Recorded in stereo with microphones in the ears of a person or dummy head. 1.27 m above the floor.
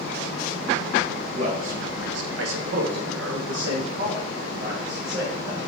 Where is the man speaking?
35° right (ahead or behind), 0.8 m; by 5.6 s 45° right (ahead or behind), 1.9 m.